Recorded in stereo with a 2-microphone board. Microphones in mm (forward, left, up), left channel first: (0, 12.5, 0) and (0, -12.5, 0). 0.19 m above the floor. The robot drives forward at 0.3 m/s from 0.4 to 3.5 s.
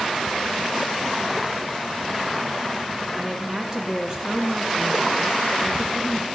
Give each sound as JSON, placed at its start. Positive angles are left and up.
{"t": 3.1, "sound": "a woman speaking", "side_deg": -40, "distance_m": 3.0}